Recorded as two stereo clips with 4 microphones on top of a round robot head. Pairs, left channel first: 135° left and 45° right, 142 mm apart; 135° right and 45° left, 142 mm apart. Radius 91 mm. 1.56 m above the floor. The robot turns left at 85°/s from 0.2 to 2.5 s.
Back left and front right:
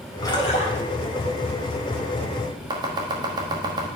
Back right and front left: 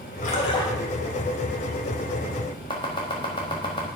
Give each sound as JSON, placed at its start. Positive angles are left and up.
{"t": 0.2, "sound": "a splash", "azimuth_deg": -160, "distance_m": 1.5}
{"t": 2.7, "sound": "chopping", "azimuth_deg": -90, "distance_m": 1.1}